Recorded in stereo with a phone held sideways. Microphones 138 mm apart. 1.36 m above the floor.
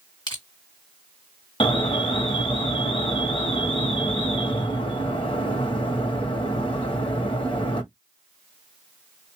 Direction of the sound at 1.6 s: 40° left (ahead or behind).